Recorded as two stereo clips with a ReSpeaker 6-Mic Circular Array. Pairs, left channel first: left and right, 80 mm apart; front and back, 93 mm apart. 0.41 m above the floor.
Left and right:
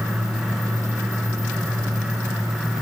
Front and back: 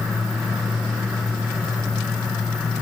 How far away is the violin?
No violin in this recording.